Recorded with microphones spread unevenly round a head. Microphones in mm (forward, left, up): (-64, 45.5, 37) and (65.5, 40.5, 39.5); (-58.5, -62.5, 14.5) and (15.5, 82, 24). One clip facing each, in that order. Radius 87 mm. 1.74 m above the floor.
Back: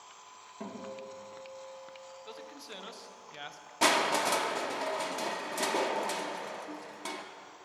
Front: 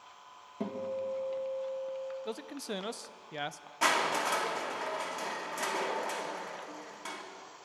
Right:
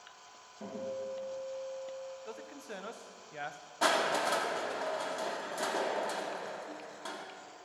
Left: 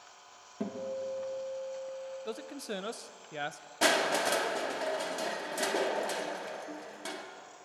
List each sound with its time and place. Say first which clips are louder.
0.6 s a guitar: front 7 dB, left 3 dB; 50° left, 3.5 m
2.2 s a man speaking: front 7 dB, left 6 dB; 25° left, 0.8 m
3.8 s crushing: back 2 dB, left 2 dB; 120° left, 2 m